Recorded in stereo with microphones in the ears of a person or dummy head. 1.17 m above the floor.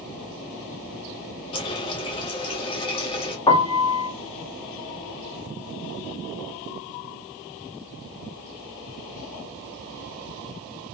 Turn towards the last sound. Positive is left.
turn(degrees=20)  # may be behind; listen again after turning